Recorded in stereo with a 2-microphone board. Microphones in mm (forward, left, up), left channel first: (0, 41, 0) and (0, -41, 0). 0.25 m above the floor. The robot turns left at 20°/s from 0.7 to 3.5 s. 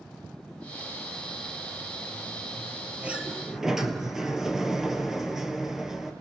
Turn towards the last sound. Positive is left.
turn(degrees=-5)  # may be behind; listen again after turning